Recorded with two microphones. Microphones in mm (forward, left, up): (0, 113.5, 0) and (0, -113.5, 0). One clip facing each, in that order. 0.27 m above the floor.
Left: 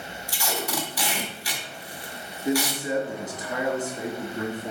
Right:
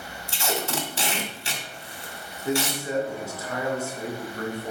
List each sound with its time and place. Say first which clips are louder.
0.3 s tape being pulled: right 2 dB; 25° right (ahead or behind), 1.7 m
2.5 s a man speaking: left 2 dB; 20° left (ahead or behind), 3 m